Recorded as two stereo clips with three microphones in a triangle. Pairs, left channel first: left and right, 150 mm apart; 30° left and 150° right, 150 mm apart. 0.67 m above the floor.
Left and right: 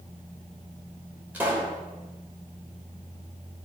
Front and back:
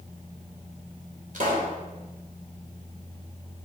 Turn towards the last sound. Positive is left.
turn(degrees=-170)